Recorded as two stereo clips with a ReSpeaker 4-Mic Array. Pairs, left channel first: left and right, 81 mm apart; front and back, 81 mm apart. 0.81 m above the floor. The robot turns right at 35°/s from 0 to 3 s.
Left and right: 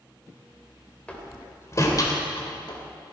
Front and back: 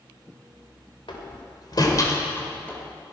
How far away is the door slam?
About 2 m.